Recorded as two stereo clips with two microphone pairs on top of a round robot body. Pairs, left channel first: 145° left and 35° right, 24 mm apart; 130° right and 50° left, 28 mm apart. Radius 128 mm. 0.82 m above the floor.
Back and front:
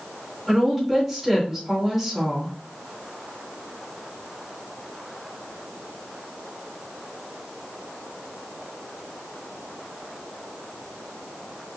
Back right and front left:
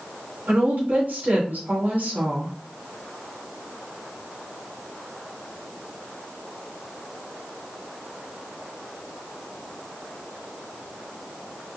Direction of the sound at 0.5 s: 55° left.